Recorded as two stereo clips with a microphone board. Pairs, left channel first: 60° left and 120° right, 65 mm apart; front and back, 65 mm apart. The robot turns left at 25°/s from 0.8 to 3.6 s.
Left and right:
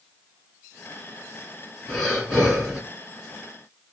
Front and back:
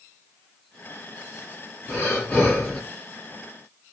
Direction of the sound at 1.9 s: 10° right.